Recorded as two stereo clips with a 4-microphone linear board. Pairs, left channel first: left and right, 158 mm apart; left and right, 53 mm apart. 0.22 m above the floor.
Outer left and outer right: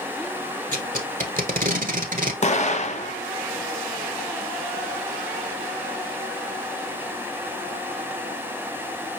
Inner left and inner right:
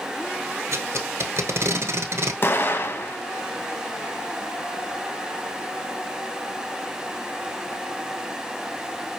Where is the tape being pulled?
60° right (ahead or behind), 0.9 m.